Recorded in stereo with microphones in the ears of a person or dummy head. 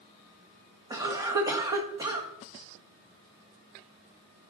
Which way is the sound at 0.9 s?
15° right (ahead or behind).